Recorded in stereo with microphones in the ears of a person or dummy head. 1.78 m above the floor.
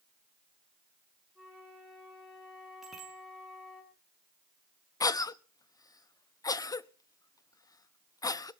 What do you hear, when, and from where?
1.4 s a flute: centre (ahead or behind), 5 m
2.8 s a bicycle bell: centre (ahead or behind), 3 m
5.0 s a cough: 20° left (ahead or behind), 0.6 m